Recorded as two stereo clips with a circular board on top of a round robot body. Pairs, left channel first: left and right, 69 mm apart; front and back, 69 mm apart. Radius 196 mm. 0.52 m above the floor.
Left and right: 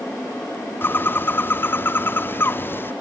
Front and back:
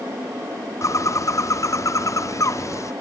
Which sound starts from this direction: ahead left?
A bird, at 0.8 s.